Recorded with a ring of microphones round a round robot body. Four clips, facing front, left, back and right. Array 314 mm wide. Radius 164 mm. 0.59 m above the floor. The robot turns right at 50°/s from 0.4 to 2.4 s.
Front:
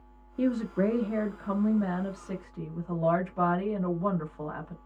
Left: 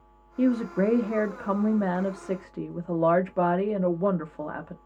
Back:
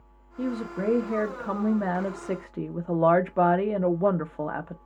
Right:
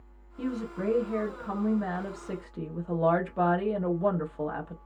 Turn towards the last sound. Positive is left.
turn(degrees=165)